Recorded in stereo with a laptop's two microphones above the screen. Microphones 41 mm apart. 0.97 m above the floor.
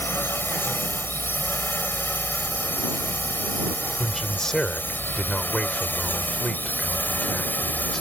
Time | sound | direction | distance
0.0 | a drone | 55° left (ahead or behind) | ?
4.0 | a man speaking | 10° left (ahead or behind) | ?